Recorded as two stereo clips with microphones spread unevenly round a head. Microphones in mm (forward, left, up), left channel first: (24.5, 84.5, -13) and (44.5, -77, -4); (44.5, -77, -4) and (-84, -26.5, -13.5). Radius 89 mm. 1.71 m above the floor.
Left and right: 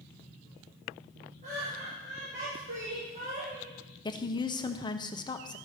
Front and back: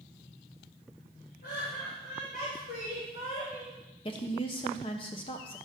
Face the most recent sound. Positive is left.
turn(degrees=35)